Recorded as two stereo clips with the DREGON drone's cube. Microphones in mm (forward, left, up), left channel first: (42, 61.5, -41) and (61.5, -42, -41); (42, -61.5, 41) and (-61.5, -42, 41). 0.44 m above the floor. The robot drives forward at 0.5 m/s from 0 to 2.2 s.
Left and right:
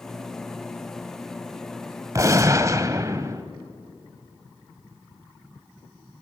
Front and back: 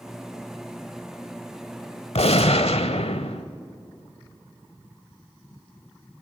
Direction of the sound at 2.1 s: 20° right.